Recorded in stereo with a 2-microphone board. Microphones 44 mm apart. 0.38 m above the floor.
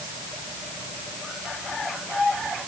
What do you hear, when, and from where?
Only background noise.